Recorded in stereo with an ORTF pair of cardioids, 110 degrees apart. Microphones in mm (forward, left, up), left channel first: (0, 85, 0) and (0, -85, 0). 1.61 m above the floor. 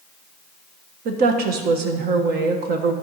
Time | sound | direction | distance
1.1 | a woman speaking | 70° right | 1.4 m